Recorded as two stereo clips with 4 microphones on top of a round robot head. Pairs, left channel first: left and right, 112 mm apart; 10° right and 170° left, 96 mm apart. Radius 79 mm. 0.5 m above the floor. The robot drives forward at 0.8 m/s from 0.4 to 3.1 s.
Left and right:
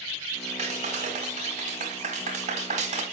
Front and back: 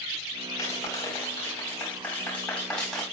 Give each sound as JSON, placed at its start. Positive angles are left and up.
{"t": 0.6, "sound": "a clap", "azimuth_deg": -70, "distance_m": 4.5}